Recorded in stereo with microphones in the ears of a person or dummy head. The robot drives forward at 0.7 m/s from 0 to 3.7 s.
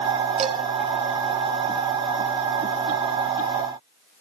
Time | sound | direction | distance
0.4 | dishes clattering | 35° right (ahead or behind) | 1.9 m